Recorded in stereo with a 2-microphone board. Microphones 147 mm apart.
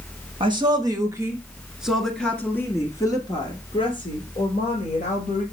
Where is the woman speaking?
35° right (ahead or behind), 1.5 m; by 5.4 s 50° left (ahead or behind), 2.5 m.